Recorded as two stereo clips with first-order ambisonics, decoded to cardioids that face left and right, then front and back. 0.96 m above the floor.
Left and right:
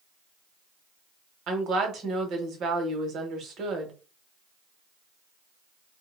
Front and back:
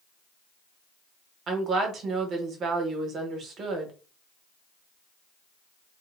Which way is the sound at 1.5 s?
130° right.